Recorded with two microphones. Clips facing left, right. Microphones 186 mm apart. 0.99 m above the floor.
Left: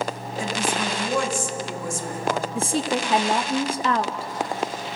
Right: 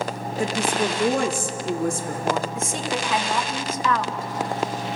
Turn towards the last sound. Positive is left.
turn(degrees=30)  # may be behind; listen again after turning